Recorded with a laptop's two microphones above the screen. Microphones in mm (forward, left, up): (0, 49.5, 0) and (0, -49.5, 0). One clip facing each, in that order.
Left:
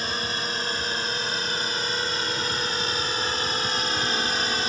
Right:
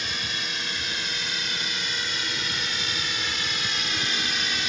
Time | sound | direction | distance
0.0 | a drone | 40° left (ahead or behind) | ?